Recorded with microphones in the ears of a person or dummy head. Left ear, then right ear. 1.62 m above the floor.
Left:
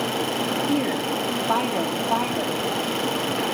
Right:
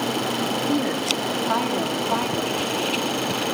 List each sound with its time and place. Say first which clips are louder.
0.7 s a woman speaking: right 1 dB; 15° left (ahead or behind), 2.5 m